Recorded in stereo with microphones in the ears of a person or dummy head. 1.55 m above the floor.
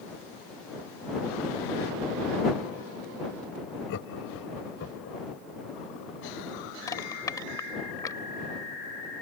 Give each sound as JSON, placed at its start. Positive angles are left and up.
{"t": 3.9, "sound": "laughter", "side_deg": 75}
{"t": 6.9, "sound": "crushing", "side_deg": 20}